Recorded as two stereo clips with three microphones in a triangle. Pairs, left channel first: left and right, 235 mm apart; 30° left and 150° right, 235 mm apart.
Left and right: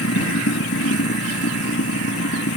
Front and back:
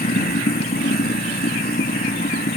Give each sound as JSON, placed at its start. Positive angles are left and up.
{"t": 0.0, "sound": "running water", "azimuth_deg": 80}